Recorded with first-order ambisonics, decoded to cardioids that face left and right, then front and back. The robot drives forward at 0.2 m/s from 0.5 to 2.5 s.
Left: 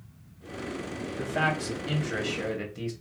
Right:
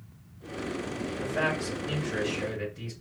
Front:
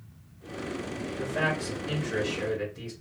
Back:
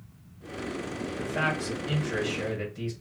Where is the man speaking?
100° left, 1.9 m; by 2.9 s 110° left, 2.0 m.